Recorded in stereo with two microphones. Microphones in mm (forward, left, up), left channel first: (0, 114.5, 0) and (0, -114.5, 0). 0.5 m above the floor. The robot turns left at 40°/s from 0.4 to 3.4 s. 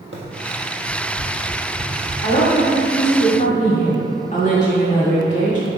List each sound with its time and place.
0.1 s running footsteps: 65° right (ahead or behind), 1.1 m; by 2.1 s 75° right (ahead or behind), 2.5 m
2.2 s a woman speaking: 125° left, 1.4 m; by 5.7 s 80° left, 1.4 m